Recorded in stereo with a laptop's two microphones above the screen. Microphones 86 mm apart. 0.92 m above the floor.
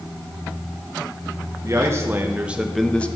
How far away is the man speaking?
About 1.2 m.